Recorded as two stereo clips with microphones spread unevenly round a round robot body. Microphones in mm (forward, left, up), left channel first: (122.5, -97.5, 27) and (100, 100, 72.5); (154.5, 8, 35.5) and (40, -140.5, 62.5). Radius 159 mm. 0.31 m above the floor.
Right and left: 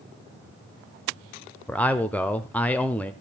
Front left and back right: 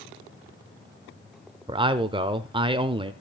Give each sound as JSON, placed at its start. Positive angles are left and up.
{"t": 1.7, "sound": "a man speaking", "azimuth_deg": -95, "distance_m": 0.8}